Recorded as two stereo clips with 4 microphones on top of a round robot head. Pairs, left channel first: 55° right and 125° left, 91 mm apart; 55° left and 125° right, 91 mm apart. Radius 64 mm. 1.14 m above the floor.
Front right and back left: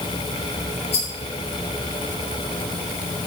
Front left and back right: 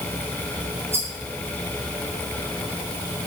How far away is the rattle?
About 4.5 m.